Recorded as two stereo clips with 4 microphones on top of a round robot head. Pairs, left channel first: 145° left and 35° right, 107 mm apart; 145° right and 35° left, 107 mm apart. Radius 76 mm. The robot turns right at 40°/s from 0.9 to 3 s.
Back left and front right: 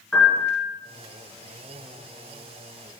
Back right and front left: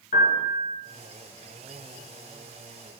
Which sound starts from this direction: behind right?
A piano, at 0.1 s.